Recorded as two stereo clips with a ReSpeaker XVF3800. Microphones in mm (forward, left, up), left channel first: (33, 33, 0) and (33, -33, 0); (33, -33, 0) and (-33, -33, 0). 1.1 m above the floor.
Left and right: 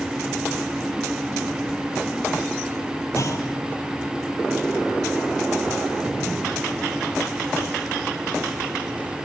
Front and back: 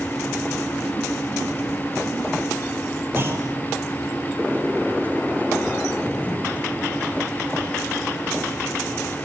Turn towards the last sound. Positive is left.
turn(degrees=130)